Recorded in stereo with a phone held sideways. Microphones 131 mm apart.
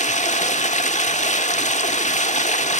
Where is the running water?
65° left (ahead or behind), 1.3 m.